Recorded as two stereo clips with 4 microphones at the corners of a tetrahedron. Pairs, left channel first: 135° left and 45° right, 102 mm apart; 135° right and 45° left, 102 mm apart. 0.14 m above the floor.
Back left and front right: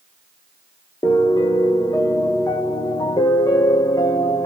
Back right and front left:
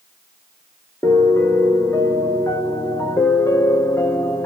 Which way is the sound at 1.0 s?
170° left.